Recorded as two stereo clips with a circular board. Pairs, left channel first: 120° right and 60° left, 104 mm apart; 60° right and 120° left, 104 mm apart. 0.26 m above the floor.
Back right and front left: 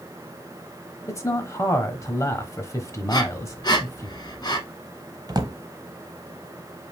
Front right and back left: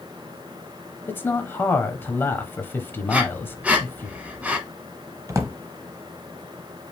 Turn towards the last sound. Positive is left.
turn(degrees=75)